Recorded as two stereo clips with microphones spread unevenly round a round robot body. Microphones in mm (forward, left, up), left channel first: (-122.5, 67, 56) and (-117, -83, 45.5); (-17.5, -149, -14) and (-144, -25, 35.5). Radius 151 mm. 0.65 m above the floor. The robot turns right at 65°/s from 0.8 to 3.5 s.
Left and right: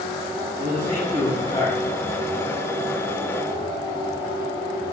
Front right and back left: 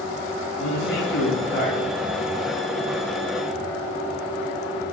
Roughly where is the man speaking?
Ahead right.